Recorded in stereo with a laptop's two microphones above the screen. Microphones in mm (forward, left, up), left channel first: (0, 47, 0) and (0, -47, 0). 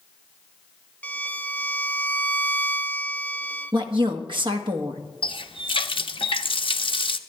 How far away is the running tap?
About 0.6 m.